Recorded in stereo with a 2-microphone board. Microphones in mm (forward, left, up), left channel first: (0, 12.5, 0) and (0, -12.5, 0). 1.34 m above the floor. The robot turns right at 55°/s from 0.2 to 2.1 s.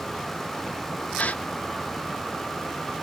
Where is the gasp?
65° left (ahead or behind), 0.6 m; by 1.4 s 70° left (ahead or behind), 0.6 m.